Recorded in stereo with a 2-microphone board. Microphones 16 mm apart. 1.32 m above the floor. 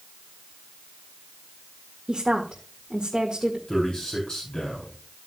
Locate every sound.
2.1 s a woman speaking: 40° right (ahead or behind), 1.8 m
3.7 s a man speaking: 50° left (ahead or behind), 3.5 m